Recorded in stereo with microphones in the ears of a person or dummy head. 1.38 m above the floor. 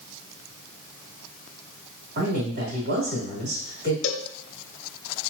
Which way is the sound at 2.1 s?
50° right (ahead or behind).